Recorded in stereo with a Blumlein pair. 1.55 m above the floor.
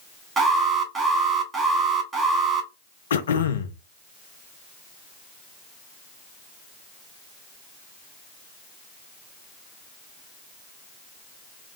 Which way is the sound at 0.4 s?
10° right.